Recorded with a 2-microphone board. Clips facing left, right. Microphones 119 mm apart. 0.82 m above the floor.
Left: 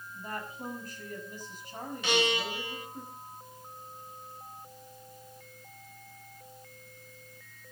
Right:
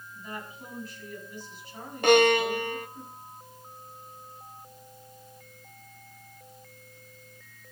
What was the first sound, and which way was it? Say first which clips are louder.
A woman speaking: left 1 dB; 45° left (ahead or behind).